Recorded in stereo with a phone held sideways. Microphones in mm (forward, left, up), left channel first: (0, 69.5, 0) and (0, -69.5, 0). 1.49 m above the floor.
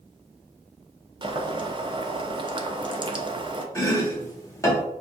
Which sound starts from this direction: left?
Chopping, at 3.8 s.